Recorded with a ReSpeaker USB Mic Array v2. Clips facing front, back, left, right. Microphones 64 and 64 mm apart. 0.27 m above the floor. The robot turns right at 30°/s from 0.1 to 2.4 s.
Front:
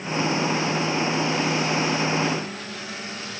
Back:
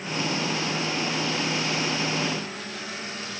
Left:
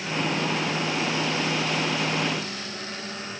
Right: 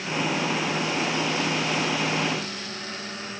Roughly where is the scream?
No scream in this recording.